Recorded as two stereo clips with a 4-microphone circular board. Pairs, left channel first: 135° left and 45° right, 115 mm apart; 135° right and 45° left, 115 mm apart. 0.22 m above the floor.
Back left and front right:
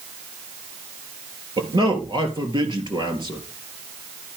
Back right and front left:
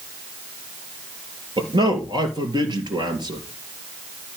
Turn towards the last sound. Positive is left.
turn(degrees=0)